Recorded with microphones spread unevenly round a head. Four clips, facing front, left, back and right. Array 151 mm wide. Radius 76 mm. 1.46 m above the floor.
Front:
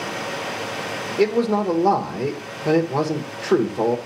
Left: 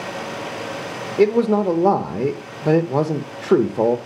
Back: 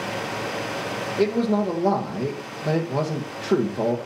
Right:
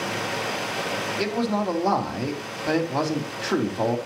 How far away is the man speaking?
About 1.2 m.